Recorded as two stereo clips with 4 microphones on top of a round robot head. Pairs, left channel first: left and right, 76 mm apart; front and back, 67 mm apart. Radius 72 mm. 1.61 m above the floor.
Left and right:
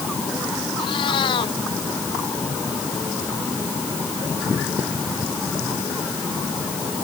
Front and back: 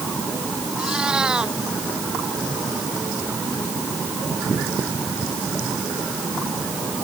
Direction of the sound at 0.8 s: 100° left.